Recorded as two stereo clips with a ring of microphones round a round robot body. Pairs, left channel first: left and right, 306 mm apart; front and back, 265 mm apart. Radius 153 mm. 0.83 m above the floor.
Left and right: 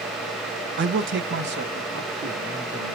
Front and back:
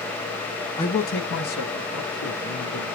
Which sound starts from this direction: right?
A man speaking, at 0.8 s.